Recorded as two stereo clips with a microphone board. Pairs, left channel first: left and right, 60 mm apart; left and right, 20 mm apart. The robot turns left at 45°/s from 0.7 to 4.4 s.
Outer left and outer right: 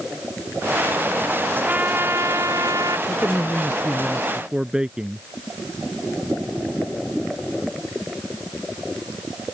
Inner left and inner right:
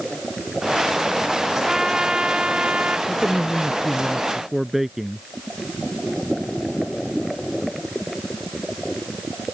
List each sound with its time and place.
1.5 s a trumpet: 20° right; by 3.0 s 85° right
3.1 s a man speaking: 45° left; by 5.2 s 15° right